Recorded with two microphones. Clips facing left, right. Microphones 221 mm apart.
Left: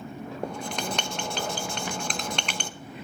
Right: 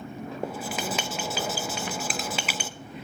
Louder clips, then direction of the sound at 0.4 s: Even; 5° right (ahead or behind).